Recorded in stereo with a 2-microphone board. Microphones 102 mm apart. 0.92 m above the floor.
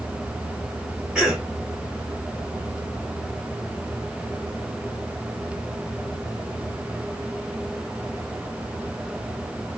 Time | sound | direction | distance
1.1 | a cough | 10° right (ahead or behind) | 0.9 m